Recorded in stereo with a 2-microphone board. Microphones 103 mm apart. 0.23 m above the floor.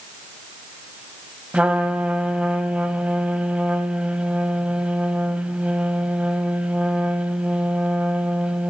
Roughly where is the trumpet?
Centre.